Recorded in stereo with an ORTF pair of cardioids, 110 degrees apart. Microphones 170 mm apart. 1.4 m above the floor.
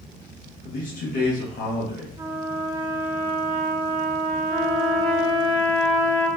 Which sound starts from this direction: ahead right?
A trumpet, at 2.2 s.